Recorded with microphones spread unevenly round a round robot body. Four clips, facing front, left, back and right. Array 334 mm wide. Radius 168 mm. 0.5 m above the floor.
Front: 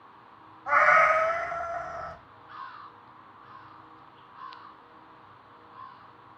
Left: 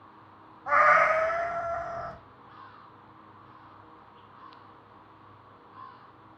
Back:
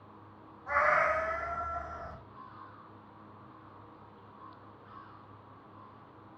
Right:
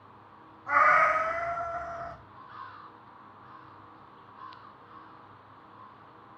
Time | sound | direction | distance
0.7 | a cat meowing | 35° left | 1.2 m